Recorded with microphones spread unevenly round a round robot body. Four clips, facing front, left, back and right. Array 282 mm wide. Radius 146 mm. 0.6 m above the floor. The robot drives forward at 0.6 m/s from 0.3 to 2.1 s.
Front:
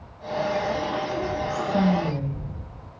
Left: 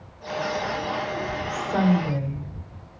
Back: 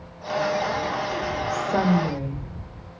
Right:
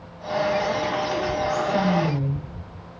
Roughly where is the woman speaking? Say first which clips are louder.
Left 1 dB, back 1 dB; behind left.